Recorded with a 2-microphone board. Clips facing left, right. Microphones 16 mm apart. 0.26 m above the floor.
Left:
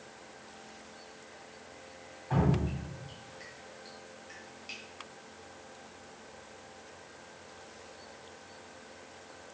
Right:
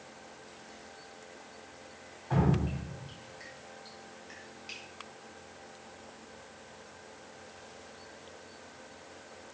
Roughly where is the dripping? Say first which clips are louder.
Right 1 dB; centre.